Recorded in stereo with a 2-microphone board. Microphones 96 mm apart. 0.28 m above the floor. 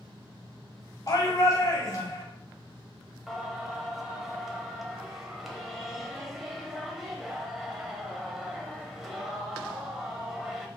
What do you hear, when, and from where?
1.1 s a shout: 40° left (ahead or behind), 1.8 m
3.3 s singing: 5° right (ahead or behind), 0.8 m